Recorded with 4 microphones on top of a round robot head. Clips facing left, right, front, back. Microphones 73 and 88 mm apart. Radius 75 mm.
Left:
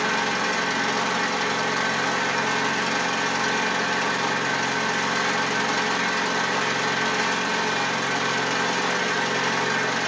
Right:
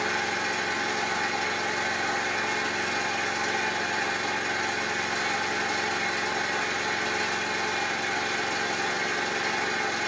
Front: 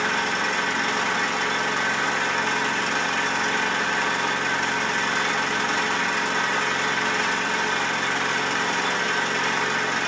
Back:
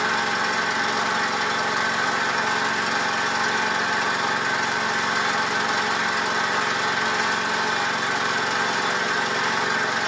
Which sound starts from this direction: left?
An engine running, at 0.0 s.